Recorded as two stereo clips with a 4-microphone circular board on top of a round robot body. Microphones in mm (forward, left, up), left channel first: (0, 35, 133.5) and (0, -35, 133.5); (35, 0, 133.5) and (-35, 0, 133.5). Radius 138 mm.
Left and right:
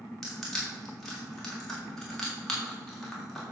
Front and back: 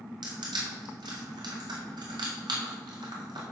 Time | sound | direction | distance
0.2 | crushing | 175° left | 3 m